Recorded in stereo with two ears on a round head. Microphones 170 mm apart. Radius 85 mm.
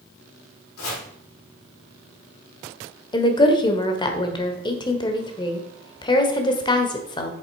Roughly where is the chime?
No chime in this recording.